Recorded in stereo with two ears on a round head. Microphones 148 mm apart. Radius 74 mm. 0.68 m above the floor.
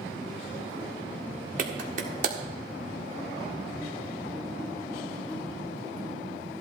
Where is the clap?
50° right (ahead or behind), 1.7 m.